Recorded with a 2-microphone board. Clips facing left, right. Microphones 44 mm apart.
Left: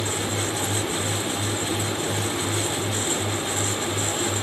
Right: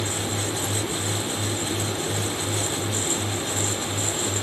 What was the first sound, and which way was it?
Only background noise.